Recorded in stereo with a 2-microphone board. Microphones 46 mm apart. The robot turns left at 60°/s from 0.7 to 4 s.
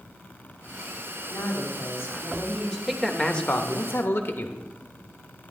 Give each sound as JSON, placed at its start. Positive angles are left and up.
{"t": 1.3, "sound": "a woman speaking", "azimuth_deg": 100, "distance_m": 2.5}
{"t": 2.9, "sound": "a man speaking", "azimuth_deg": -175, "distance_m": 0.9}